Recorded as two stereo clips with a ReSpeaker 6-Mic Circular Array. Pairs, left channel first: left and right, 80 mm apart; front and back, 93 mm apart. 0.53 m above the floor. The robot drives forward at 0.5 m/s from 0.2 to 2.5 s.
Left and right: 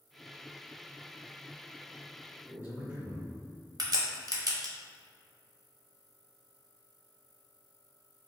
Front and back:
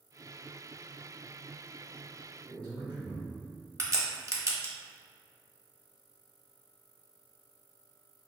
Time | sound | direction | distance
2.5 | a man speaking | 155° right | 1.8 m
3.8 | a crack | 125° right | 0.8 m